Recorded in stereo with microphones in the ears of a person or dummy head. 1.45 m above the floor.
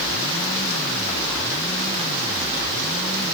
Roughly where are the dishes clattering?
I don't hear dishes clattering.